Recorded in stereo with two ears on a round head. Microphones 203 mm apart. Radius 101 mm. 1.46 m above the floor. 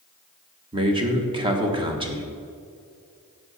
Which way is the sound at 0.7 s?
20° right (ahead or behind).